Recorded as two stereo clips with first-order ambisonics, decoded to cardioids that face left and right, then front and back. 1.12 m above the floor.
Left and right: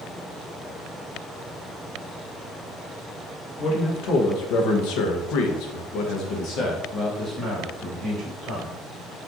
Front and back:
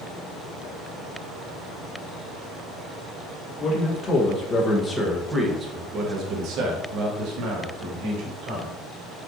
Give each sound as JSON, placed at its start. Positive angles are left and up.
{"t": 3.6, "sound": "a man speaking", "azimuth_deg": 55, "distance_m": 1.5}